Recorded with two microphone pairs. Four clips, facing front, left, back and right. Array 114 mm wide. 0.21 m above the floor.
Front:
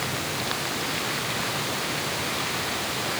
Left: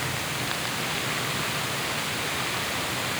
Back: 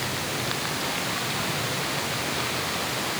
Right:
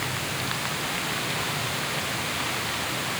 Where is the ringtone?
No ringtone in this recording.